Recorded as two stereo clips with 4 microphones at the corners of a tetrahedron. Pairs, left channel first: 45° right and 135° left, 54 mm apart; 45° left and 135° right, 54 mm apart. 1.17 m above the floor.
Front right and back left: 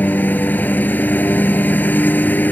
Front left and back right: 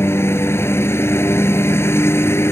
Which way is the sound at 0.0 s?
10° left.